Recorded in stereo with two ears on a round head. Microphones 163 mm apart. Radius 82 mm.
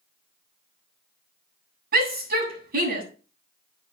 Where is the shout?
60° right (ahead or behind), 8 m.